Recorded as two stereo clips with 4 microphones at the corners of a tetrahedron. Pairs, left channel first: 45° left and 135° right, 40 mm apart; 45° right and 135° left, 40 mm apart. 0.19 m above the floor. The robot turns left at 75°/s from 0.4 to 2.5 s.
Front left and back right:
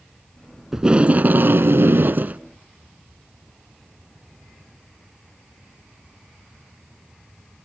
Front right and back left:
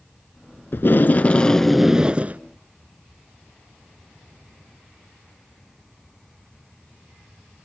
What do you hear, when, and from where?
0.7 s tape being pulled: 55° right, 0.7 m; by 2.4 s straight behind, 0.7 m